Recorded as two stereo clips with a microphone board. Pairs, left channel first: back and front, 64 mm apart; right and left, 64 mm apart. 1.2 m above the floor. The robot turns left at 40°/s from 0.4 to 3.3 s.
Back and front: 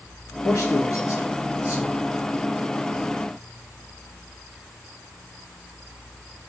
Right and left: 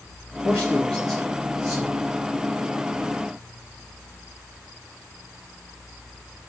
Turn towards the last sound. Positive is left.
turn(degrees=100)